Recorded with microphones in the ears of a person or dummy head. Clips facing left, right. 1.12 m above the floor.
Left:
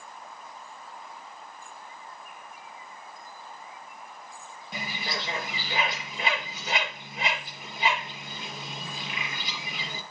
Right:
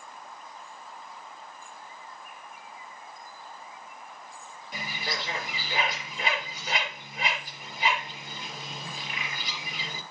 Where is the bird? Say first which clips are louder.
Left 1 dB; 25° left (ahead or behind), 4 m.